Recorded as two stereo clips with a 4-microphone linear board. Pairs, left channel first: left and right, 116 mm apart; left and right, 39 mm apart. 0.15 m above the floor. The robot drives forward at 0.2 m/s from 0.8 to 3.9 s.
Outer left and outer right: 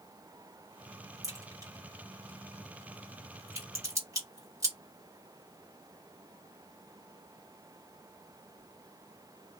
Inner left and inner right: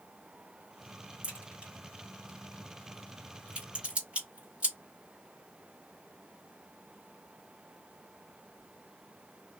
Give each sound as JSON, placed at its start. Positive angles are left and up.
{"t": 1.2, "sound": "a crack", "side_deg": -30, "distance_m": 2.0}